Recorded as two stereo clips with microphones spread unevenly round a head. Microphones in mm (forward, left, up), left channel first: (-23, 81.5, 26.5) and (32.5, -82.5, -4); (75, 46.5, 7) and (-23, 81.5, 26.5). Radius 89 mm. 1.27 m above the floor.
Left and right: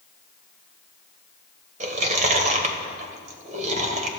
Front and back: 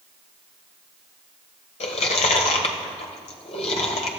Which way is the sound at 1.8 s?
20° right.